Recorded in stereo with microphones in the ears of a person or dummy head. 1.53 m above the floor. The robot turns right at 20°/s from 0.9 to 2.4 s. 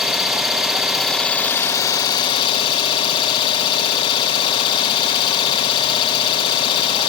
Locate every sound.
0.0 s an engine running: straight ahead, 1.3 m; by 7.1 s 30° left, 1.3 m